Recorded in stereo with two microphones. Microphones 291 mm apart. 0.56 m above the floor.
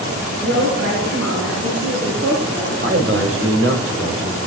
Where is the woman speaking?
65° right (ahead or behind), 6.5 m; by 2.7 s 75° right (ahead or behind), 8.5 m.